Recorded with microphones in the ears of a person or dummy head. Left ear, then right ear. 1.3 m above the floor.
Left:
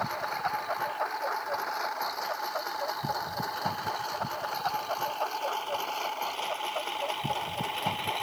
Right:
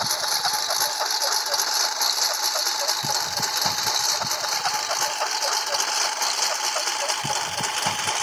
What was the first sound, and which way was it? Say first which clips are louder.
A lawn mower: right 7 dB; 80° right.